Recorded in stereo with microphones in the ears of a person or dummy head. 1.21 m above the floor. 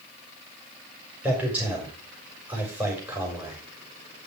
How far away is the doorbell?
I don't hear a doorbell.